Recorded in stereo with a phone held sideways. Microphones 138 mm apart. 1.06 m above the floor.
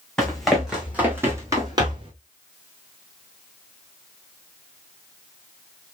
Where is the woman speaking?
No woman speaking in this recording.